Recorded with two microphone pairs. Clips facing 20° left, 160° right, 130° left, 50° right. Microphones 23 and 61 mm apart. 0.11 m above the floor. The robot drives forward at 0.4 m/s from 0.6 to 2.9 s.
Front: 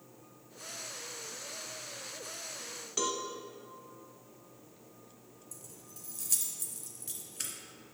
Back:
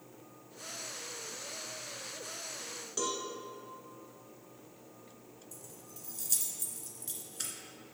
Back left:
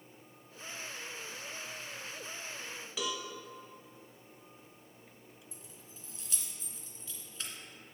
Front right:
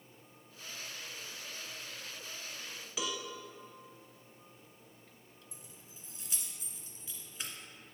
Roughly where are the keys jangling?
Right.